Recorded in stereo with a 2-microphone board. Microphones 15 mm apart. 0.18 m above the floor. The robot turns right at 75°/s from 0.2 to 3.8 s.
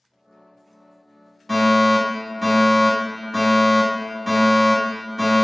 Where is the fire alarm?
15° left (ahead or behind), 1.9 m; by 5.5 s 15° right (ahead or behind), 1.9 m.